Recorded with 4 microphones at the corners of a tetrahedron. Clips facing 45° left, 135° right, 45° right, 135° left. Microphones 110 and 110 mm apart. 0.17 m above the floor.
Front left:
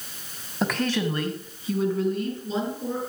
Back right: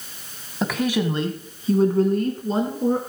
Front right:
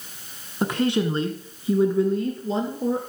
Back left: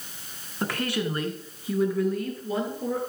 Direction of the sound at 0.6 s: 40° right.